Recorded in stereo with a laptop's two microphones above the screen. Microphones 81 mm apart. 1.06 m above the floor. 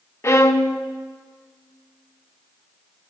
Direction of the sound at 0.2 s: 35° left (ahead or behind).